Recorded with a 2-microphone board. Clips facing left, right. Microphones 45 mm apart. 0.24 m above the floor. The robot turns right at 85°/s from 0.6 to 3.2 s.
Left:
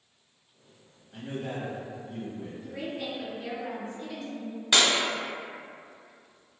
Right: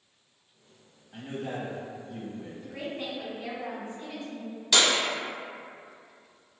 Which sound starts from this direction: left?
Breaking glass, at 4.7 s.